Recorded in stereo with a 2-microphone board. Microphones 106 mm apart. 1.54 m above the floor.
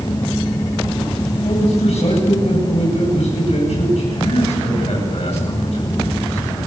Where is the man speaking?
80° left, 9.5 m.